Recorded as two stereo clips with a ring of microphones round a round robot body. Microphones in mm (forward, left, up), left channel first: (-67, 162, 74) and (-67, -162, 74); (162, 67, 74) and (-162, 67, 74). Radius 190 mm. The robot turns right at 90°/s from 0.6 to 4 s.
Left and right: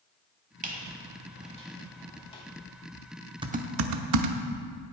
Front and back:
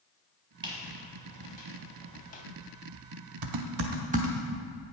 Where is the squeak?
120° right, 0.8 m; by 2.4 s 45° left, 0.8 m.